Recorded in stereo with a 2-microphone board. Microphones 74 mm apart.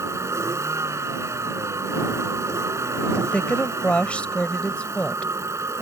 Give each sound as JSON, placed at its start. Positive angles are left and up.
{"t": 0.0, "sound": "a vehicle", "side_deg": -40}
{"t": 3.2, "sound": "a woman speaking", "side_deg": 15}